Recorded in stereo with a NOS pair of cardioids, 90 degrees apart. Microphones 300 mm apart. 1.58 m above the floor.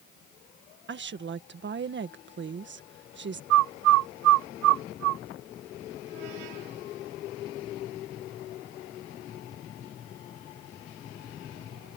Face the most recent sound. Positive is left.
turn(degrees=-70)